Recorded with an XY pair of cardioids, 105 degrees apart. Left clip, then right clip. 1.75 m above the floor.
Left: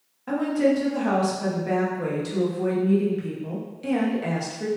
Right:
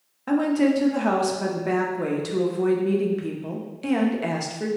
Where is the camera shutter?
I don't hear a camera shutter.